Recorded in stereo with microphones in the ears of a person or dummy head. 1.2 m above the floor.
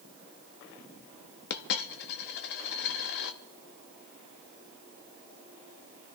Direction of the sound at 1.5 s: 60° left (ahead or behind).